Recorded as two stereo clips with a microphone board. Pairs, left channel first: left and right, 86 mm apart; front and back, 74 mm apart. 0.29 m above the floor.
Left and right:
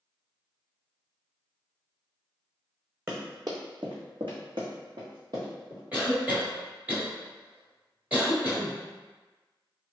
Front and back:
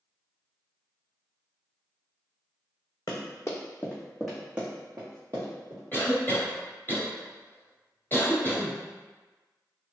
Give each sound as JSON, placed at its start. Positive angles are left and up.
{"t": 3.1, "sound": "running footsteps", "azimuth_deg": -35, "distance_m": 1.1}
{"t": 5.9, "sound": "a cough", "azimuth_deg": -35, "distance_m": 1.3}